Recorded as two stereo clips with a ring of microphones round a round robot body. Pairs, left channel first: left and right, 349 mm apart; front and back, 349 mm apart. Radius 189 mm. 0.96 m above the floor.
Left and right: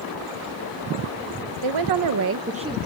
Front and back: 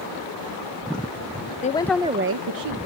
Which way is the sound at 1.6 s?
65° right.